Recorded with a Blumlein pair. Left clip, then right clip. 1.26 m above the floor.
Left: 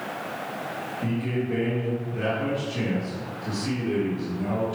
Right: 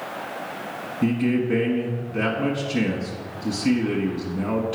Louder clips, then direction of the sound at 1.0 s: Right 8 dB; 60° right.